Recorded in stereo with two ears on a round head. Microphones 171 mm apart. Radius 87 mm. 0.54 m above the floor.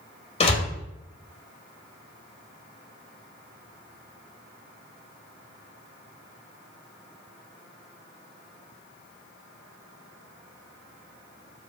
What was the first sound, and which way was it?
A door slam, 35° left (ahead or behind).